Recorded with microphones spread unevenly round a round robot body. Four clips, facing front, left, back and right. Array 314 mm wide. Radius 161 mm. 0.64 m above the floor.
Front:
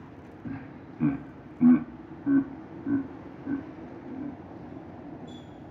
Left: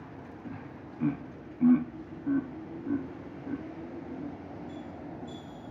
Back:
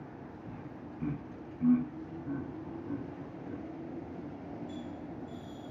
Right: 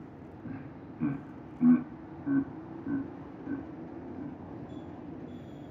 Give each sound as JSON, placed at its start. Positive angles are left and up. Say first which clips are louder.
{"t": 0.5, "sound": "laughter", "louder": "right 2 dB, front 9 dB", "azimuth_deg": 5, "distance_m": 0.7}